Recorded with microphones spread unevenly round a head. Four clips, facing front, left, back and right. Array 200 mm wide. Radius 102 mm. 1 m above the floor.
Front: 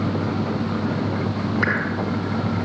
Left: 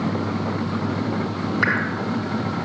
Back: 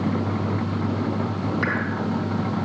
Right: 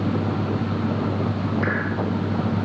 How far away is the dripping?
About 2.5 m.